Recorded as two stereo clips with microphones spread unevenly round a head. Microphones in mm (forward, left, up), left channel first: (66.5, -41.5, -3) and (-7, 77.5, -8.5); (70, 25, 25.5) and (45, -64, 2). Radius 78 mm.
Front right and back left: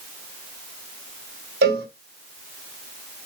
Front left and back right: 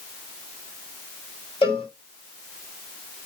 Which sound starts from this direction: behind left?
A cowbell, at 1.6 s.